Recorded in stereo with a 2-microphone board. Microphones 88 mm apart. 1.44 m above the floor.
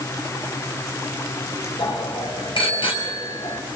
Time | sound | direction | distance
1.8 | a bicycle bell | 85° left | 6 m